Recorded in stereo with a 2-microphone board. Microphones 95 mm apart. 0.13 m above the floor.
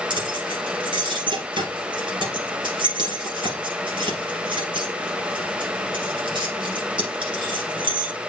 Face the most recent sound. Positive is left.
turn(degrees=-60)  # may be behind; listen again after turning